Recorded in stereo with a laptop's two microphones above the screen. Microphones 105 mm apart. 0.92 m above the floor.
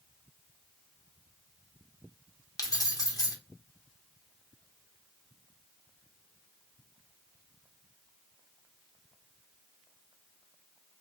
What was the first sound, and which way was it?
Keys jangling, 35° left (ahead or behind).